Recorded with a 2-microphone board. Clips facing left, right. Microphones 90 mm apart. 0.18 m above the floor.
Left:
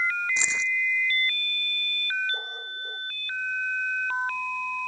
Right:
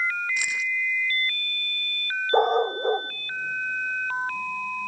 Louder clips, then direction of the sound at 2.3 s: Right 17 dB; 75° right (ahead or behind).